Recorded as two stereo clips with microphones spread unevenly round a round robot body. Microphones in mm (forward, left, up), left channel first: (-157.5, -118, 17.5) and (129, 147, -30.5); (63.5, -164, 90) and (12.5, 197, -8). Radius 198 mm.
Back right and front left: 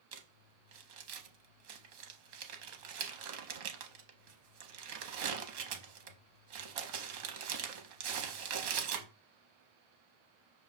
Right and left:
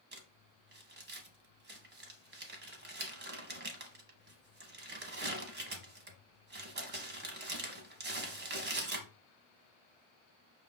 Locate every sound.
0.1 s crumpling: 30° left, 0.7 m